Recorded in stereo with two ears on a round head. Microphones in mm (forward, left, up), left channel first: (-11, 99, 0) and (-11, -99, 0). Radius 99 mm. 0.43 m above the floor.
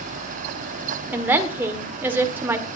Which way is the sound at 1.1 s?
10° right (ahead or behind).